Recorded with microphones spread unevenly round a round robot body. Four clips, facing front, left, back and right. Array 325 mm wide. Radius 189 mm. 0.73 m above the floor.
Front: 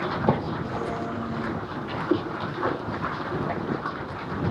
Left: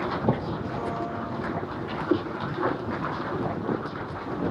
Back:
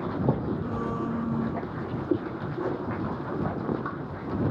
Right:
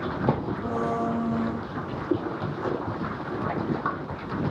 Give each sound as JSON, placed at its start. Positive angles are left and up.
{"t": 0.6, "sound": "a blender", "azimuth_deg": -120}